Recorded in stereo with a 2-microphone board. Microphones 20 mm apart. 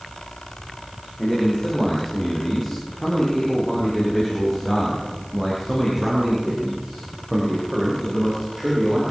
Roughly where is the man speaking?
Centre.